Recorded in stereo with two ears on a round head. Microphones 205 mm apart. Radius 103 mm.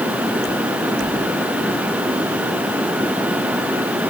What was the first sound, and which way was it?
Only background noise.